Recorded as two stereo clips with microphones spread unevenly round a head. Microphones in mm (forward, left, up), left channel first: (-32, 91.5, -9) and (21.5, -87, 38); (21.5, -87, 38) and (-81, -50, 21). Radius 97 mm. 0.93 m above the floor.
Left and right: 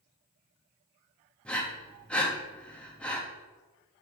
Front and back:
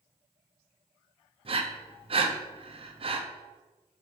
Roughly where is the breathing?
Behind.